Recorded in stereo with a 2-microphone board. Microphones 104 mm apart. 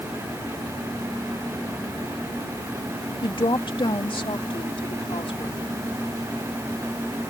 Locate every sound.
3.2 s a woman speaking: 50° left (ahead or behind); by 5.7 s 65° left (ahead or behind)